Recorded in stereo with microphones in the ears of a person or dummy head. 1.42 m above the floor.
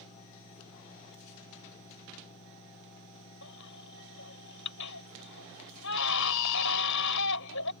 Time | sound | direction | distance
3.4 | a baby crying | 70° left (ahead or behind) | ?